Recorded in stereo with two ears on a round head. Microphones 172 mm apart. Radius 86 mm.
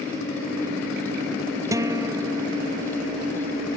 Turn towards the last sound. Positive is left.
turn(degrees=-15)  # may be behind; listen again after turning